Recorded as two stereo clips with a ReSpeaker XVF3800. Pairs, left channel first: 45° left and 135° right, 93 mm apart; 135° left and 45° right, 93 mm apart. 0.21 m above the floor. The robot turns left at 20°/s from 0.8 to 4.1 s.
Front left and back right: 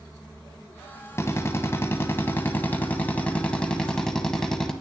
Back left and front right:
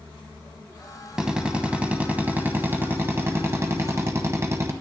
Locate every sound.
1.2 s a drill: 30° left, 1.1 m; by 4.7 s 30° right, 1.1 m